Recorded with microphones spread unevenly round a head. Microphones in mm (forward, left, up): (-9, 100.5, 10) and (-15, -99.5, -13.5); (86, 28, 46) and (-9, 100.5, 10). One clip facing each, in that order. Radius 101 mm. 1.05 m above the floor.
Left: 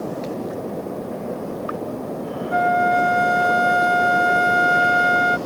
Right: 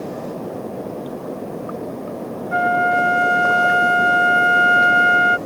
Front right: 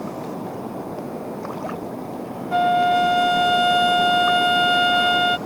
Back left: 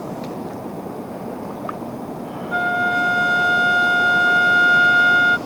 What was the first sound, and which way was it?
A flute, 5° right.